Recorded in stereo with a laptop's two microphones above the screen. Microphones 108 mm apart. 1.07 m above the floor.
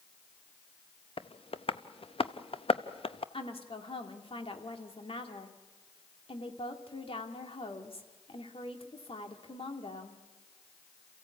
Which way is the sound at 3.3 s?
65° left (ahead or behind).